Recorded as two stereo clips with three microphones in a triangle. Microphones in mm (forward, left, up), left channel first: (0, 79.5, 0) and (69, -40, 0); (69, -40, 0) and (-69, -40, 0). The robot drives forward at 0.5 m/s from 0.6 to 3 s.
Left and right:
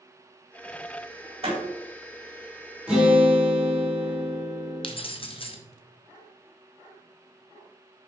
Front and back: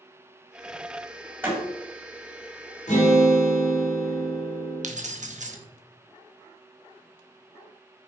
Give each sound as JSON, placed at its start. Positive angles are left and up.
{"t": 1.4, "sound": "a door slam", "azimuth_deg": -105, "distance_m": 2.5}
{"t": 2.9, "sound": "a guitar", "azimuth_deg": 20, "distance_m": 2.5}
{"t": 4.8, "sound": "keys jangling", "azimuth_deg": 165, "distance_m": 0.8}